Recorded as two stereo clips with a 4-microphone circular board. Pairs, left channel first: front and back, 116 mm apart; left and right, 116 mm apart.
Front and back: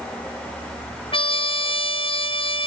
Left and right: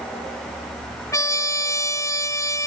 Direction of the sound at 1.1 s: 30° left.